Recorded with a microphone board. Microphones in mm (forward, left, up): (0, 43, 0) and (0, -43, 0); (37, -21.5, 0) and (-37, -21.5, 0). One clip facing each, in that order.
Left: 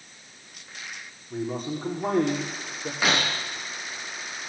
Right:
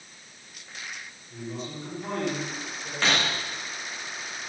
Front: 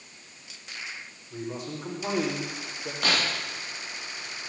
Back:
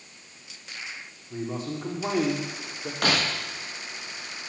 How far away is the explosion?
I don't hear an explosion.